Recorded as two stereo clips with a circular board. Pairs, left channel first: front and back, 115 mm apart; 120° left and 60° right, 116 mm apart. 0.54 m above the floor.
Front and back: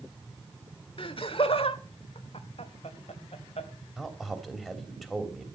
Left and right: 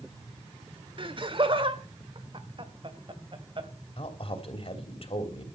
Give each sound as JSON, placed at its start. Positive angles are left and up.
{"t": 1.0, "sound": "laughter", "azimuth_deg": -30, "distance_m": 1.5}
{"t": 4.0, "sound": "a man speaking", "azimuth_deg": 90, "distance_m": 3.0}